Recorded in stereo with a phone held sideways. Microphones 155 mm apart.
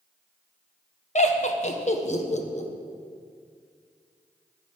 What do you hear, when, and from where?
1.1 s laughter: 45° left (ahead or behind), 1.2 m